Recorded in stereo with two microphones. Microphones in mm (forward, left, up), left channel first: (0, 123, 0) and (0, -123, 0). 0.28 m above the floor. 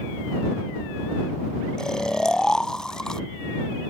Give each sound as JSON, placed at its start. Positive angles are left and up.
{"t": 1.8, "sound": "snoring", "side_deg": 5}